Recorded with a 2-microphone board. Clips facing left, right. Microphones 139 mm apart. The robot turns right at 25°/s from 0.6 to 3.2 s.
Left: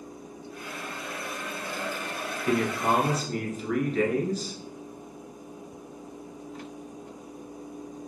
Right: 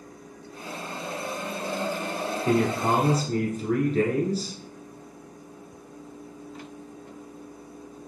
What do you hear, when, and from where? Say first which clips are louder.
2.5 s a man speaking: right 2 dB; 35° right (ahead or behind), 1.5 m; by 4.6 s 40° right (ahead or behind), 1.5 m